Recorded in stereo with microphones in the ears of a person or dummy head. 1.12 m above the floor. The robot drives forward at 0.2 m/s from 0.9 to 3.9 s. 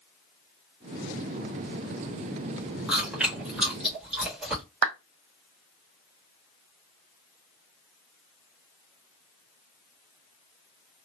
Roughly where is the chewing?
Centre.